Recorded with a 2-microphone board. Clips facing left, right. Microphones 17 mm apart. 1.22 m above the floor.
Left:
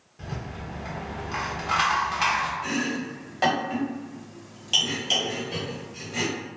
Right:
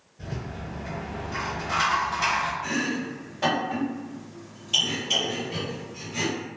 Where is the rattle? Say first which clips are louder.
Even; 80° left, 0.9 m.